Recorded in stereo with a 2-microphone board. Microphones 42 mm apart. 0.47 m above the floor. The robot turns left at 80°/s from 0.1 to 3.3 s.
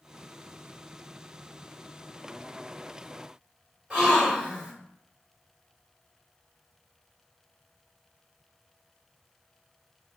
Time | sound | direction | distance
3.9 | a gasp | 20° right (ahead or behind) | 1.2 m